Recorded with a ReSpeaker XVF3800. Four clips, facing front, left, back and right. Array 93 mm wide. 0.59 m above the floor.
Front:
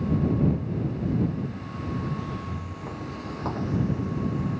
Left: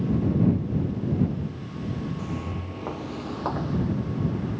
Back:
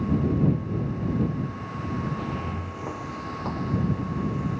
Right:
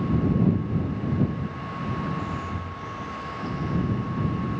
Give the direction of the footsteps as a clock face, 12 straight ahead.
7 o'clock.